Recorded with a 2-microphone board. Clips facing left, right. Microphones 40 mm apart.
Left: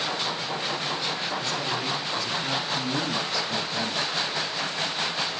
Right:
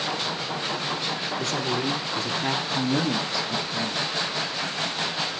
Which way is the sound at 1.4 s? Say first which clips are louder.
Right 2 dB; 55° right (ahead or behind).